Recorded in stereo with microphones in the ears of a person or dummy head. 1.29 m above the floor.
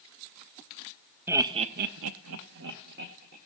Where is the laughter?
10° right (ahead or behind), 0.7 m; by 3.4 s 50° right (ahead or behind), 1.4 m.